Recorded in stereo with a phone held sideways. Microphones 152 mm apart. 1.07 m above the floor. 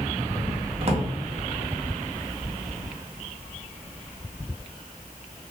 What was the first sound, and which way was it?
A drawer, 40° right (ahead or behind).